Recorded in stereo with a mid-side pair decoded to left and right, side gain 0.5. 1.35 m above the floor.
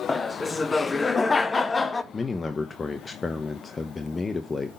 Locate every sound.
0.1 s laughter: 30° left, 0.9 m
2.1 s a man speaking: 30° left, 0.8 m